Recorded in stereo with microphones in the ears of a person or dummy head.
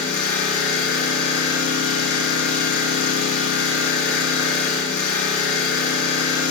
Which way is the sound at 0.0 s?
85° left.